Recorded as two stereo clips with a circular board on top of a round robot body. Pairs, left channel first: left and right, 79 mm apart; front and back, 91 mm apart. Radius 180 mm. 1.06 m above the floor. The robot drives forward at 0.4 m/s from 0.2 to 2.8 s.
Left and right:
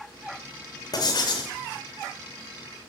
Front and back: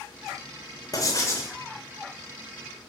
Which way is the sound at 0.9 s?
50° left.